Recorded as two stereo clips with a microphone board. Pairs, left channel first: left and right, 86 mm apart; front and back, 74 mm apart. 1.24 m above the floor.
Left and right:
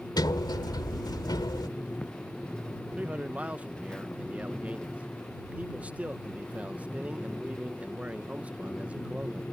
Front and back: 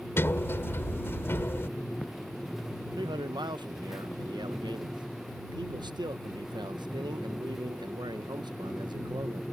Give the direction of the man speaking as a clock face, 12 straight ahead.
5 o'clock.